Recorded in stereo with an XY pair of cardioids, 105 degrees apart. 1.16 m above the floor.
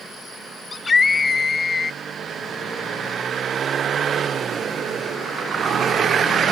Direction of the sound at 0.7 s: 30° left.